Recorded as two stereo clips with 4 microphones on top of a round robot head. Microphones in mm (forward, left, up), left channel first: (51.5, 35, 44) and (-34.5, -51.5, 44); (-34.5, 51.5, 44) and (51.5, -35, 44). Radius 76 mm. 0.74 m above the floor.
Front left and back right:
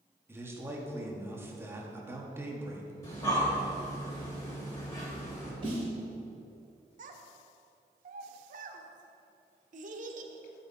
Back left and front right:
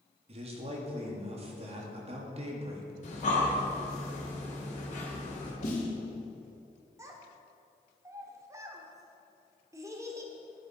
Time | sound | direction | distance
0.3 | a man speaking | 65° right | 1.5 m
3.0 | breathing | 110° left | 2.5 m
5.6 | a snare drum | 170° left | 3 m
7.0 | a child speaking | 115° right | 0.9 m